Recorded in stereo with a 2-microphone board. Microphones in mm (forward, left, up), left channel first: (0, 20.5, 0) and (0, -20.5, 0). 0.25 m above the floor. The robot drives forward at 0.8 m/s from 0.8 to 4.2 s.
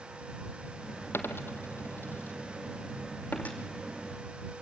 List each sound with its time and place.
1.1 s a dropped coin: 80° left, 1.8 m; by 3.6 s 40° left (ahead or behind), 3 m